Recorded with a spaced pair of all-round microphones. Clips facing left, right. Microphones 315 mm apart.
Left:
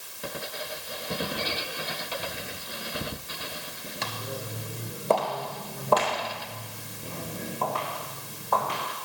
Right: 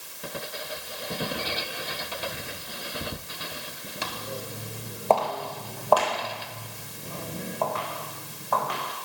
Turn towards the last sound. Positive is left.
turn(degrees=35)  # may be behind; listen again after turning